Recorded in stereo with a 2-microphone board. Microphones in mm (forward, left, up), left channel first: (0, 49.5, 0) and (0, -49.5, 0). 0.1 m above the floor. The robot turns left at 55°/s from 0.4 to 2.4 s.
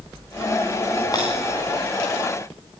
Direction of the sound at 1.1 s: 40° left (ahead or behind).